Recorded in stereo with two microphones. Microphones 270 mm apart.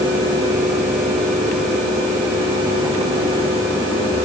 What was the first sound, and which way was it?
Only background noise.